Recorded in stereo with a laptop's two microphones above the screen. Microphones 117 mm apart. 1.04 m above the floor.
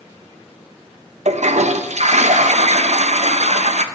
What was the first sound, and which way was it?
A toilet flushing, 75° right (ahead or behind).